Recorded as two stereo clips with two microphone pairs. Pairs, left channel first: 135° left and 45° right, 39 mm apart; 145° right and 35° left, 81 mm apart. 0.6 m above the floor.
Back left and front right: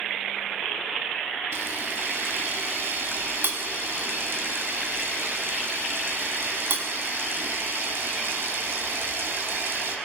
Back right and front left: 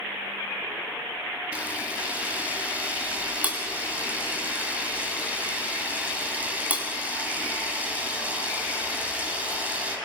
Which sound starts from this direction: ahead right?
A camera shutter, at 1.5 s.